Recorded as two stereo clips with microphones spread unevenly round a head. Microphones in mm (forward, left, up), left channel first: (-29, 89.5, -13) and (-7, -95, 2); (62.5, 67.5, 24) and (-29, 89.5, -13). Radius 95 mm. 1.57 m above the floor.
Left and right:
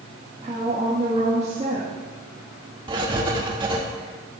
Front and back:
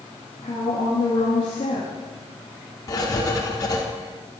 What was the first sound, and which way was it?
A woman speaking, 25° right.